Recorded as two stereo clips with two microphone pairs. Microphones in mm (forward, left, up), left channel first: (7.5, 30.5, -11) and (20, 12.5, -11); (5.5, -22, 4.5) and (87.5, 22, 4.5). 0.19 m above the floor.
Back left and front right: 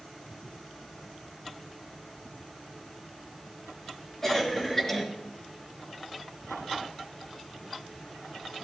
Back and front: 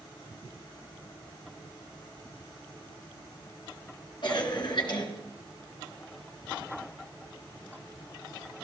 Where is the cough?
165° right, 2.5 m.